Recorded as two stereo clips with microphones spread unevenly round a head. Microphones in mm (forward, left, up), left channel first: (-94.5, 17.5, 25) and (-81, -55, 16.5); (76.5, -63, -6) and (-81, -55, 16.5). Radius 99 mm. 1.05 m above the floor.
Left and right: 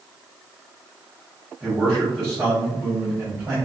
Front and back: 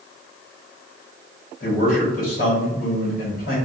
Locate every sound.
1.6 s a man speaking: 10° left, 1.0 m